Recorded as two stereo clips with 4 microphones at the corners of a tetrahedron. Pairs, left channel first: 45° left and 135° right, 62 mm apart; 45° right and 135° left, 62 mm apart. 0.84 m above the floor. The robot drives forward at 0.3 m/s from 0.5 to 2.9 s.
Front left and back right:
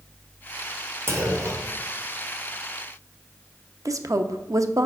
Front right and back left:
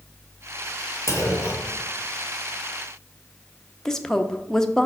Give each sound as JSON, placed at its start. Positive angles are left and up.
{"t": 1.1, "sound": "a clunk", "azimuth_deg": -85, "distance_m": 1.4}
{"t": 3.9, "sound": "a woman speaking", "azimuth_deg": -125, "distance_m": 0.5}